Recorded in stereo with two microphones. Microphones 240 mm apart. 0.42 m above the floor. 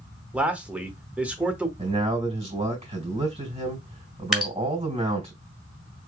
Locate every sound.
0.3 s a man speaking: 5° right (ahead or behind), 0.8 m
1.8 s a man speaking: 30° right (ahead or behind), 3 m
4.3 s dripping: centre (ahead or behind), 1.5 m